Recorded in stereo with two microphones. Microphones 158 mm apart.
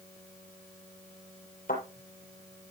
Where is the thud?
65° left (ahead or behind), 7.5 m.